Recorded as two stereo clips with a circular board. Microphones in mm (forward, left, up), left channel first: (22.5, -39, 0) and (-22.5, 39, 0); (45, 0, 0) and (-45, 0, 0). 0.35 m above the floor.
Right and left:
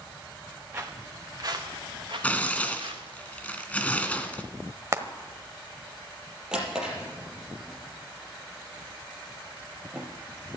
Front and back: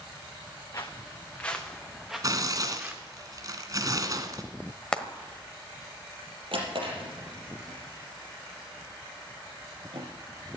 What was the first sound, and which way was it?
Footsteps, 55° left.